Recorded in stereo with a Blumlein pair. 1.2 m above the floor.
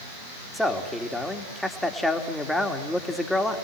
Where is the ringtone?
No ringtone in this recording.